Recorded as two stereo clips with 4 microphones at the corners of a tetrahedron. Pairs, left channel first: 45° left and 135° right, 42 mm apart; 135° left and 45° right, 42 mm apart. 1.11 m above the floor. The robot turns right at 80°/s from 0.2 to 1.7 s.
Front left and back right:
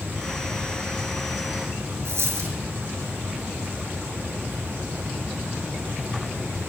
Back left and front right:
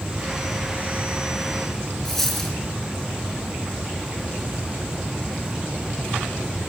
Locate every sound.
2.0 s a dropped coin: 145° right, 4.5 m